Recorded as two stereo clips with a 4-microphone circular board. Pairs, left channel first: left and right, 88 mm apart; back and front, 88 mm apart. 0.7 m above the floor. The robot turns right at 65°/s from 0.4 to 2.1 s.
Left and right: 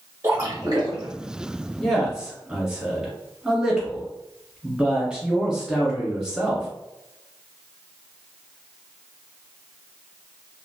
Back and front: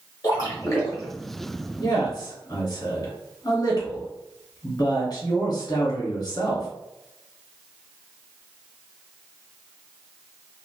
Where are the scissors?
No scissors in this recording.